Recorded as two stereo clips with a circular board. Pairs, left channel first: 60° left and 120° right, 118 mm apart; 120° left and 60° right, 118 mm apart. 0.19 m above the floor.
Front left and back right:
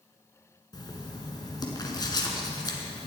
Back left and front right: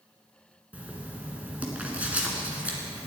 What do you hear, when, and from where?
0.7 s writing: 15° left, 1.9 m